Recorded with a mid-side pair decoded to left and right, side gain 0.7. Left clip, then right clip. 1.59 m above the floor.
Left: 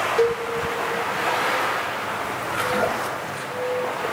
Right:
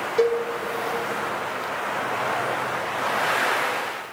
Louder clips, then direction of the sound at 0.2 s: Right 2 dB; 5° right.